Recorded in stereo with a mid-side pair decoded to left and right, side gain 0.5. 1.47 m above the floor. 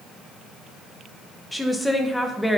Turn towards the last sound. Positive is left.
turn(degrees=5)